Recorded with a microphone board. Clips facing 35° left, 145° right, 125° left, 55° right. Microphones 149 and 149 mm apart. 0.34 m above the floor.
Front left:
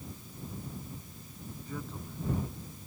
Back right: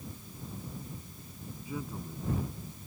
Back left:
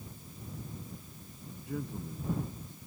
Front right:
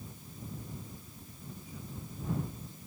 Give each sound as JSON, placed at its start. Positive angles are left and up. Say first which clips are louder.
{"t": 1.6, "sound": "a man speaking", "louder": "back right 3 dB, back left 12 dB", "azimuth_deg": 135}